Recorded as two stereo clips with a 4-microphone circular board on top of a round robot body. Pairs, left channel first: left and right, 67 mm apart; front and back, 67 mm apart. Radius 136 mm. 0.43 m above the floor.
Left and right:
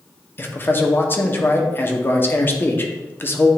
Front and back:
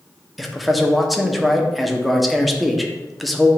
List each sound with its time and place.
0.4 s a man speaking: 90° left, 1.1 m